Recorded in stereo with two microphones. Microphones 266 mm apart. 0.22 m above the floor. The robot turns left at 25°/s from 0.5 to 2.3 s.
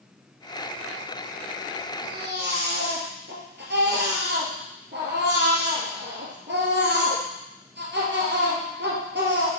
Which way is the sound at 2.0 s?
35° right (ahead or behind).